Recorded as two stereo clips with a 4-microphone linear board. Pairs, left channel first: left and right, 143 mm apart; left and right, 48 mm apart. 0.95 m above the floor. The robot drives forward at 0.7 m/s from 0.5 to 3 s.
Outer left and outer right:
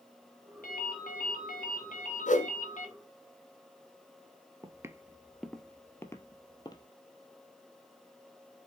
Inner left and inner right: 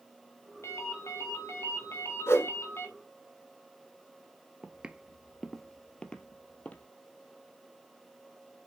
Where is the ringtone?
85° left, 3 m; by 2.9 s 60° left (ahead or behind), 3 m.